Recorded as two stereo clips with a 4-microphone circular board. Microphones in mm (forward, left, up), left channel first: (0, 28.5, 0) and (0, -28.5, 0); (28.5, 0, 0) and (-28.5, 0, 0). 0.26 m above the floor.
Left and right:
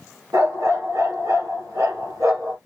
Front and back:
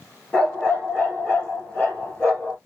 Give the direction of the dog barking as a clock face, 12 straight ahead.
2 o'clock.